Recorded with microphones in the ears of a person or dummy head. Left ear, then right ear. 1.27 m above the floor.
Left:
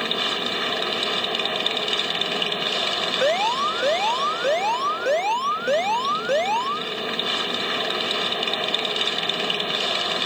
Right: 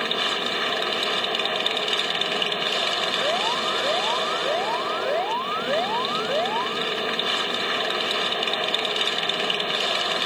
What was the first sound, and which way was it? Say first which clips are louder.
A machine running: even; 10° right (ahead or behind).